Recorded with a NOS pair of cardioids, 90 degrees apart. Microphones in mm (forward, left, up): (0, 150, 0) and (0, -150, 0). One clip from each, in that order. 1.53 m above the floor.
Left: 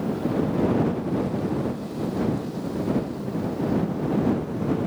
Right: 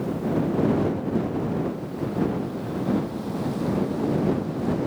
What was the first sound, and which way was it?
Only background noise.